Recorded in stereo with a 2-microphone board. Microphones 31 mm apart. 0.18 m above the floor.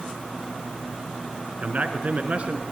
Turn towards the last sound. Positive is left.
turn(degrees=-45)  # may be behind; listen again after turning